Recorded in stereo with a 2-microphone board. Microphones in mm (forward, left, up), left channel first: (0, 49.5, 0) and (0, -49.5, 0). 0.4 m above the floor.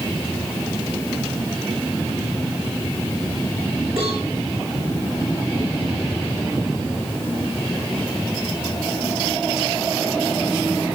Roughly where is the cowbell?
Right.